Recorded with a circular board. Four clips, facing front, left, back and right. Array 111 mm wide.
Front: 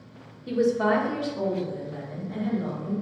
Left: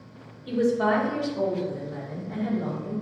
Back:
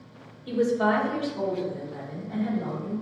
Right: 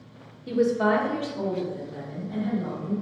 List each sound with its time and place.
0.5 s a woman speaking: 45° right, 1.1 m; by 2.9 s 100° left, 1.8 m